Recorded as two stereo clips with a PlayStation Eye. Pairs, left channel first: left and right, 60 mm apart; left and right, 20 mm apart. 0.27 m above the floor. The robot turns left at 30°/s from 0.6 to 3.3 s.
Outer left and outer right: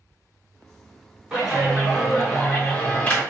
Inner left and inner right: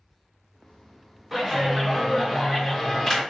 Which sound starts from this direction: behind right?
A clap, at 1.3 s.